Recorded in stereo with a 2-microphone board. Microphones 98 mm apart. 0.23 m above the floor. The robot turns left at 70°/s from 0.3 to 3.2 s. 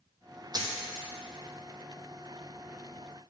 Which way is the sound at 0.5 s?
45° right (ahead or behind).